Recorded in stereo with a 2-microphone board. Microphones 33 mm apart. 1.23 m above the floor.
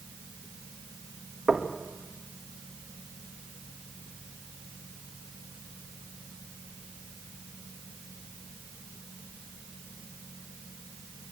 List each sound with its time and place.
1.5 s knocking: 20° right (ahead or behind), 1.6 m